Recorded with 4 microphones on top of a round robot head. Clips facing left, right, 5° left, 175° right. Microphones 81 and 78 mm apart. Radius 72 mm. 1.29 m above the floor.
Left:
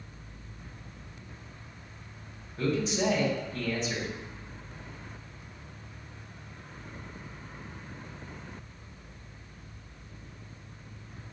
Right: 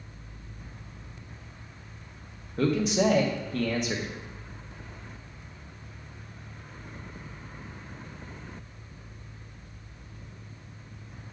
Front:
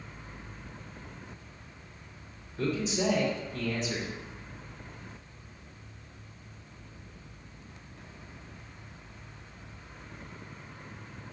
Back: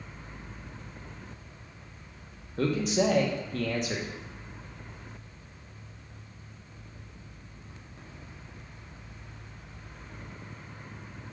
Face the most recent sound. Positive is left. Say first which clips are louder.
# right 4 dB, back 4 dB
turn(degrees=-130)